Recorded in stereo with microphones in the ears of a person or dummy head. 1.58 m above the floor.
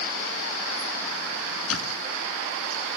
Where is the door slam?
85° left.